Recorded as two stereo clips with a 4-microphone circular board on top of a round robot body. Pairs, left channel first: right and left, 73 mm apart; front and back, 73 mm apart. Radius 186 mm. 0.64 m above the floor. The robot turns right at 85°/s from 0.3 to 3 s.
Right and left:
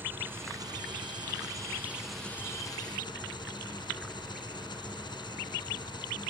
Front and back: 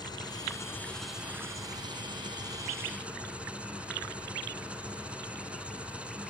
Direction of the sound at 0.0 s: 25° left.